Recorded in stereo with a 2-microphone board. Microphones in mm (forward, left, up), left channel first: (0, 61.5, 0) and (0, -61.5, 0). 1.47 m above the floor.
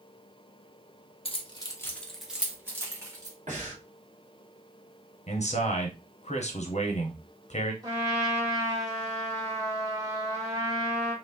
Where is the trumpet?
30° right (ahead or behind), 1.3 m.